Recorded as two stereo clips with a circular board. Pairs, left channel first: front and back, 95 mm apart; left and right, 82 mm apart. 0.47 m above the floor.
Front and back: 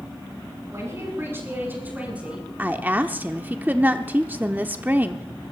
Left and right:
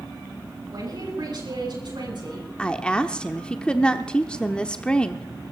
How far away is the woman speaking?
About 0.7 m.